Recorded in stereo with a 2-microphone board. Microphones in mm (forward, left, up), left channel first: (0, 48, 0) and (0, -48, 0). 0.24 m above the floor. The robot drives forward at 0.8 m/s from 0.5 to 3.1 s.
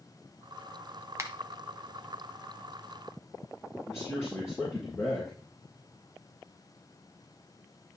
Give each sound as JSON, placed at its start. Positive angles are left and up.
{"t": 1.2, "sound": "a finger snap", "side_deg": -30, "distance_m": 1.1}
{"t": 3.9, "sound": "a man speaking", "side_deg": 30, "distance_m": 4.0}